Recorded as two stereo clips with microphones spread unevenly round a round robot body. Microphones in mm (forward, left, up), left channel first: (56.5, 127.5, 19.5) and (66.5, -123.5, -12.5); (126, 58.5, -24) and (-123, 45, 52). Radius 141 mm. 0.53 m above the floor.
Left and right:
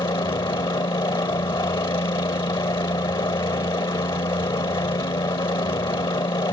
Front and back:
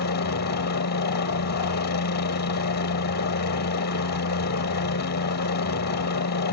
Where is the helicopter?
20° left.